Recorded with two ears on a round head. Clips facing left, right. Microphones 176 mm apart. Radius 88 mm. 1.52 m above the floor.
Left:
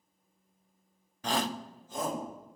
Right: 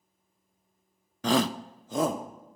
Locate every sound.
1.2 s a shout: 60° right (ahead or behind), 0.6 m; by 2.2 s 55° right (ahead or behind), 1.7 m